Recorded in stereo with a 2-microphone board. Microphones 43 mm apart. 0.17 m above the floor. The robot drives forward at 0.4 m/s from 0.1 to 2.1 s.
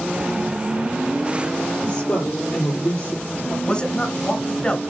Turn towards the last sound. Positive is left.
turn(degrees=25)  # may be behind; listen again after turning